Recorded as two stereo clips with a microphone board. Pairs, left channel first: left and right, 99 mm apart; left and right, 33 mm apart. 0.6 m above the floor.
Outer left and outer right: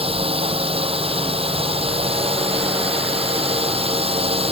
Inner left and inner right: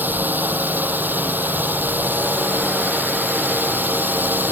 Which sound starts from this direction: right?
A drone, at 0.0 s.